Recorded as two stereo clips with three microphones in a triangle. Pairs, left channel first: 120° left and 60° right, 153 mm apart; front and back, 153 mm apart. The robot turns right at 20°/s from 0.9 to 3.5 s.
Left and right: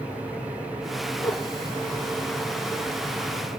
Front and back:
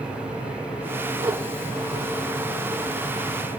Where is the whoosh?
165° left, 1.4 m.